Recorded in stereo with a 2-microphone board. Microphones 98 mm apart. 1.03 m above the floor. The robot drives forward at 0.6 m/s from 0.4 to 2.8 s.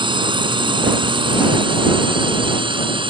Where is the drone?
55° right (ahead or behind); by 3.1 s 60° right (ahead or behind).